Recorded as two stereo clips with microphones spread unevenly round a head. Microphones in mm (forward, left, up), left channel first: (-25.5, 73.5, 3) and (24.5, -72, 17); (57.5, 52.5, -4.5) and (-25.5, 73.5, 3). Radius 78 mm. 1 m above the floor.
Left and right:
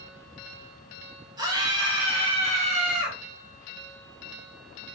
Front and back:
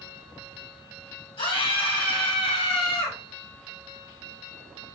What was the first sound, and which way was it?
A scream, 5° right.